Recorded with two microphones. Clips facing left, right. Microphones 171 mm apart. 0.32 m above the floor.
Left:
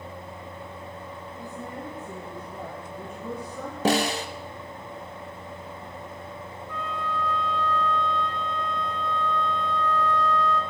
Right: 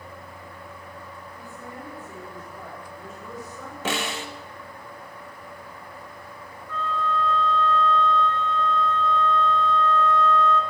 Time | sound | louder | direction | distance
1.4 | a woman speaking | left 4 dB | 40° left (ahead or behind) | 3 m
3.9 | a snare drum | left 6 dB | 35° left (ahead or behind) | 0.6 m
6.7 | a flute | right 5 dB | 15° left (ahead or behind) | 1.1 m